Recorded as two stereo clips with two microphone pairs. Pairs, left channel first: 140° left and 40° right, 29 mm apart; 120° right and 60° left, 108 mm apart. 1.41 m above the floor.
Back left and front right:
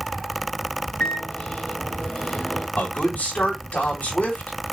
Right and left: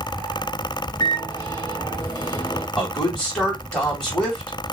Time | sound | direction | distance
1.0 | a microwave | straight behind | 2.5 m
2.8 | a man speaking | 155° left | 3 m